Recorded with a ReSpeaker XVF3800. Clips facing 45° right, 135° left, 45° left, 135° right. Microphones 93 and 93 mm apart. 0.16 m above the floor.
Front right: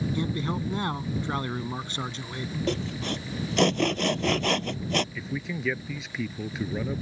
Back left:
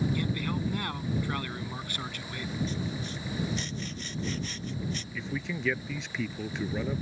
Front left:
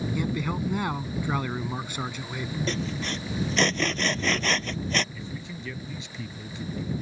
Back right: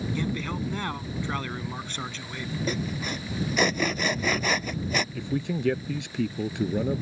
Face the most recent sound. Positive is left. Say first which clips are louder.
# front right 2 dB, back right 9 dB
turn(degrees=-135)